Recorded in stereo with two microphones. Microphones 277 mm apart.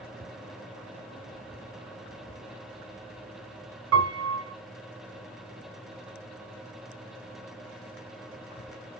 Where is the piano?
55° right (ahead or behind), 0.7 m.